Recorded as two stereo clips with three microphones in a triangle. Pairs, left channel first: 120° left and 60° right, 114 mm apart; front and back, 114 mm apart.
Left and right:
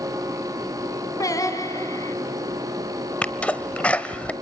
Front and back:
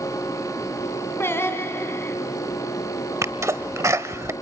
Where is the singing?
65° left, 2.5 m.